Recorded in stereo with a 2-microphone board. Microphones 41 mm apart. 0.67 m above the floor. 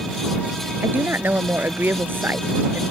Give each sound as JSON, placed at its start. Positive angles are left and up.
{"t": 0.8, "sound": "a woman speaking", "side_deg": -60}